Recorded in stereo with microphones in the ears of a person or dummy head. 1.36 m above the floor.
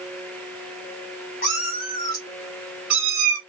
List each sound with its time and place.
1.4 s a cat meowing: 40° left (ahead or behind), 1.1 m; by 3.4 s 20° right (ahead or behind), 1.4 m